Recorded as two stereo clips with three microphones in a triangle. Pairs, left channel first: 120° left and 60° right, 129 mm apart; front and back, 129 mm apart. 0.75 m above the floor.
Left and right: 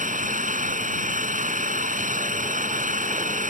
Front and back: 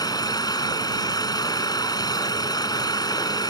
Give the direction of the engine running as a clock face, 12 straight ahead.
2 o'clock.